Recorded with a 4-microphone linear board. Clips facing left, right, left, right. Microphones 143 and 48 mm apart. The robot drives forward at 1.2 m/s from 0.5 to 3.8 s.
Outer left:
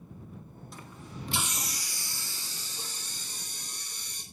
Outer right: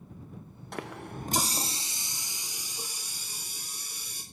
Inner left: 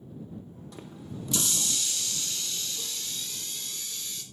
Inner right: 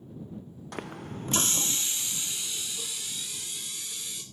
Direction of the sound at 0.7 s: 65° right (ahead or behind).